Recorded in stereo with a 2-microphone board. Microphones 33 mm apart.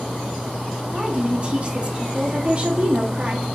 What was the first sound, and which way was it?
A woman speaking, 35° right (ahead or behind).